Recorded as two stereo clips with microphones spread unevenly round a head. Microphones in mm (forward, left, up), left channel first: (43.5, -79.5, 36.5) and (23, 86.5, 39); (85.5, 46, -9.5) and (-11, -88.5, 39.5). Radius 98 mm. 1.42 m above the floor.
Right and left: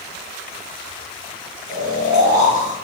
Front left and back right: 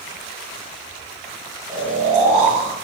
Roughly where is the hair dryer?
No hair dryer in this recording.